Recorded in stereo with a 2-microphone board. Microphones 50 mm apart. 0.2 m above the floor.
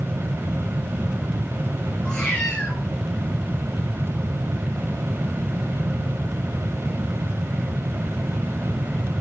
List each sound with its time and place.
2.0 s a cat meowing: 15° left (ahead or behind), 4 m